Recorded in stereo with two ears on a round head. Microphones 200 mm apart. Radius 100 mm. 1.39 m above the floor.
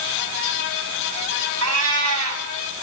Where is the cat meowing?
70° right (ahead or behind), 4.5 m.